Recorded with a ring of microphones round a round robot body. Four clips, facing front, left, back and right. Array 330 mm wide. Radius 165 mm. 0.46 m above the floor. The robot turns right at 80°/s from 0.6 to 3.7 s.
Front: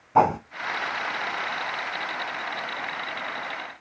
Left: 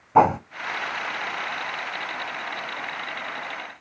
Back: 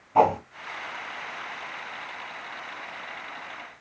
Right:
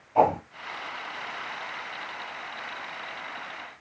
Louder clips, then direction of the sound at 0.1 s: Left 4 dB, even; 70° left.